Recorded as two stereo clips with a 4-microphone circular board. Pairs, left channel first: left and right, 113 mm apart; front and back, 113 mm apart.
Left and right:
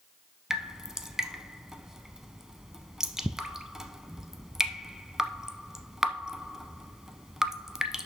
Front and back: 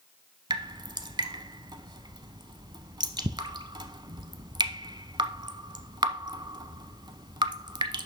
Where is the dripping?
170° right, 0.7 m.